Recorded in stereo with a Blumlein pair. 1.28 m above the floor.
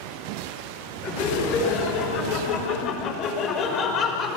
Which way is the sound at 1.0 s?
35° left.